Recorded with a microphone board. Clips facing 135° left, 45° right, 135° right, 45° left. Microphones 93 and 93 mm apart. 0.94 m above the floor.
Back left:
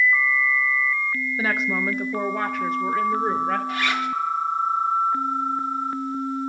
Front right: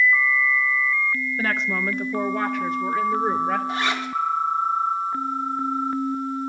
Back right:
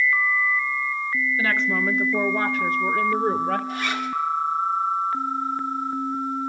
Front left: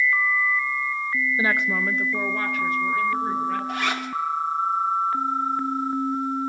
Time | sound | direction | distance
1.4 | a woman speaking | 65° left | 0.6 m
3.7 | a zipper | 20° left | 1.9 m